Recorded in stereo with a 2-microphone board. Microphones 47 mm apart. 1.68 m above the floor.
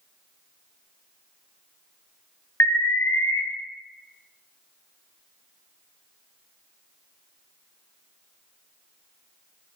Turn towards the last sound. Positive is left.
turn(degrees=75)  # may be behind; listen again after turning